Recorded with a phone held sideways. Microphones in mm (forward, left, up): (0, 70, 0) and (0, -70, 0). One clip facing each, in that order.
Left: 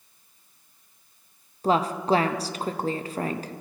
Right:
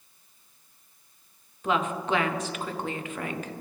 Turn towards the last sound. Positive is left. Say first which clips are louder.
# left 4 dB
turn(degrees=35)  # may be behind; listen again after turning